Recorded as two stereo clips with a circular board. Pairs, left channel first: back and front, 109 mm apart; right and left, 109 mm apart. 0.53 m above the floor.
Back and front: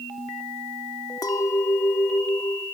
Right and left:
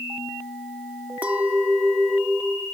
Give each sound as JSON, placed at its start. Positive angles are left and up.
{"t": 1.2, "sound": "a clink", "azimuth_deg": 160, "distance_m": 0.8}